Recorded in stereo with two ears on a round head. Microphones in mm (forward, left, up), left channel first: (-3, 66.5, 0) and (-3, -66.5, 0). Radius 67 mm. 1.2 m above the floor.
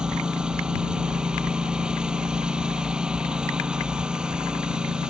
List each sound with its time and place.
0.0 s a lawn mower: 5° right (ahead or behind)